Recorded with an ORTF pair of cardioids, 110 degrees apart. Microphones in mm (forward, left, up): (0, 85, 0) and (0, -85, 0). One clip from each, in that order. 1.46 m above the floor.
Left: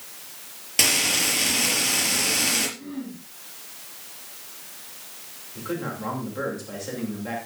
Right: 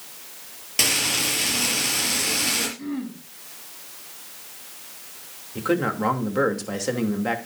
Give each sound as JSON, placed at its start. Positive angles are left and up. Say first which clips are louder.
{"t": 0.8, "sound": "frying", "louder": "left 1 dB", "azimuth_deg": 10, "distance_m": 5.0}
{"t": 2.8, "sound": "throat clearing", "louder": "right 4 dB", "azimuth_deg": -35, "distance_m": 4.5}
{"t": 5.5, "sound": "a man speaking", "louder": "right 8 dB", "azimuth_deg": -55, "distance_m": 3.0}